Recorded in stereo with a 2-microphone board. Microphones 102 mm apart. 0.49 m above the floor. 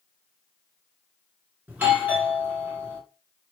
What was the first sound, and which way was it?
A doorbell, 15° right (ahead or behind).